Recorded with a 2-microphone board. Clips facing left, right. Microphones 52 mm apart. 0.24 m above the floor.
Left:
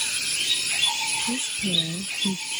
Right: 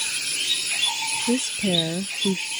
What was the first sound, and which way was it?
A woman speaking, 70° right (ahead or behind).